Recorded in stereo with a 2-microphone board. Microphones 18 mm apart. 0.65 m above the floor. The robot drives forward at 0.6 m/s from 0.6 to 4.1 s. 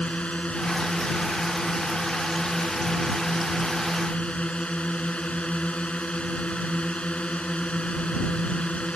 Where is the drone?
80° left.